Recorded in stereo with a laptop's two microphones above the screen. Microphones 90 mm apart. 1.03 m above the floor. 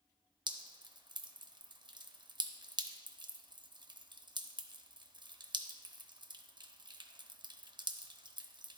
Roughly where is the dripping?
Right.